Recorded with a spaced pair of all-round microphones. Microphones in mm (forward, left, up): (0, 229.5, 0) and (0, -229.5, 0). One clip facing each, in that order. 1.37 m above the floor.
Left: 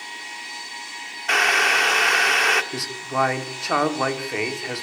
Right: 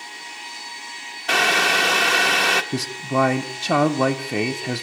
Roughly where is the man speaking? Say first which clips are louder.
Right 6 dB; right.